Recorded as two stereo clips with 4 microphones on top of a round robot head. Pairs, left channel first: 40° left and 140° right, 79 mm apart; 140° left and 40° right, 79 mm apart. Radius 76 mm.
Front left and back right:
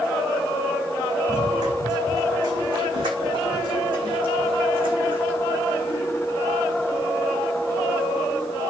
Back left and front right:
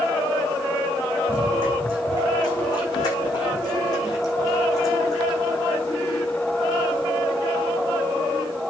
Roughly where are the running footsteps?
Behind.